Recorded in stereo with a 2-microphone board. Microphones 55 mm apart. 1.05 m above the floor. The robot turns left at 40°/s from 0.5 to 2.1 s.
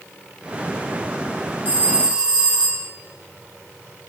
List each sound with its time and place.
1.6 s a phone ringing: 40° right (ahead or behind), 4 m; by 2.9 s 20° right (ahead or behind), 4 m